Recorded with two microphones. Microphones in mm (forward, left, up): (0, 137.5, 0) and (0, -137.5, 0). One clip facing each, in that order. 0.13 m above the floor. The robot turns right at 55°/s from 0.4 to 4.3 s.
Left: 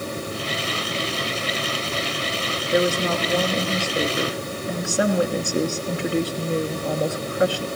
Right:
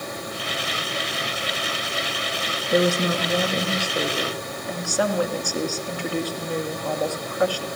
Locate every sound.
2.7 s a woman speaking: 50° right, 2 m; by 7.7 s 35° left, 2 m